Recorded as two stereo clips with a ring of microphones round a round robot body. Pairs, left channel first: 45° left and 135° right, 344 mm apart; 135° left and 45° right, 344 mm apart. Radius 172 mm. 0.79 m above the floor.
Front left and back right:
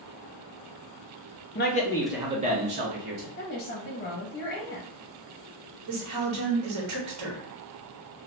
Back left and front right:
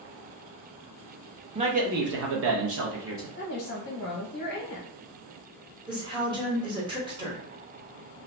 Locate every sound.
1.6 s a man speaking: 20° left, 0.6 m; by 3.3 s 95° right, 1.0 m
3.4 s a woman speaking: 95° left, 0.7 m
5.9 s a woman speaking: 120° right, 0.9 m